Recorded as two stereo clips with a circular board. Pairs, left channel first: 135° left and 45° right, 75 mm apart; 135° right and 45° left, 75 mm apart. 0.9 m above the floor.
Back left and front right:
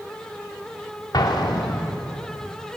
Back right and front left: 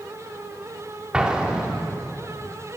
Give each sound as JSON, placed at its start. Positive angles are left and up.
{"t": 1.1, "sound": "an explosion", "azimuth_deg": 120, "distance_m": 2.5}